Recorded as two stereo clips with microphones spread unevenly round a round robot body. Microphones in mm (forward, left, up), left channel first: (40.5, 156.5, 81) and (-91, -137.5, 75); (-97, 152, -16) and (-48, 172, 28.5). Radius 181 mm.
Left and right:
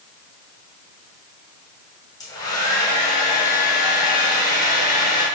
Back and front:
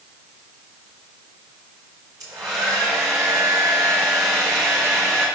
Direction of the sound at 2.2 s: 15° right.